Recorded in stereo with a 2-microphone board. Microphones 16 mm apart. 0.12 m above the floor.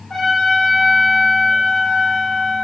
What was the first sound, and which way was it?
A trumpet, 25° left (ahead or behind).